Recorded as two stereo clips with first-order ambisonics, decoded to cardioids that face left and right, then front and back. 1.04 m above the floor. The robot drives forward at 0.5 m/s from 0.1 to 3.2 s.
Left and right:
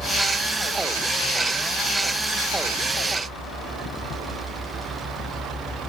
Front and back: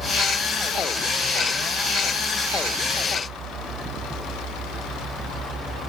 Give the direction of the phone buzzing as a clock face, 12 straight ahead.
No phone buzzing in this recording.